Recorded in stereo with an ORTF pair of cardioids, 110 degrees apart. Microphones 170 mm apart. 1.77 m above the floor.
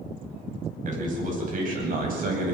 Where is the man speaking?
45° right, 9.5 m; by 2.5 s 55° right, 9.5 m.